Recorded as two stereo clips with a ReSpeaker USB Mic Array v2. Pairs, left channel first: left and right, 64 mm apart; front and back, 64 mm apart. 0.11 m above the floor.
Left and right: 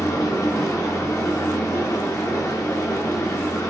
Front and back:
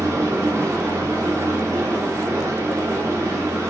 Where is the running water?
130° left, 3 m.